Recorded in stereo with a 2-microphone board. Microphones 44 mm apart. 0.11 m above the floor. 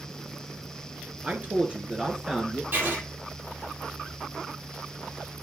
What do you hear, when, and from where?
1.2 s a man speaking: 35° right (ahead or behind), 1.7 m; by 2.6 s 5° right (ahead or behind), 1.7 m
2.7 s writing: 50° right (ahead or behind), 4 m